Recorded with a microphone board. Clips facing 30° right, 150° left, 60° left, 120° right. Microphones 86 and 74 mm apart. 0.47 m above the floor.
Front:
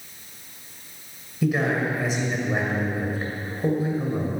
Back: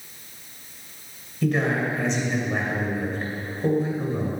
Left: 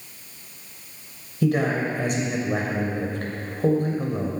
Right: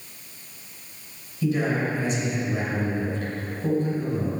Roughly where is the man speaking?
Ahead left.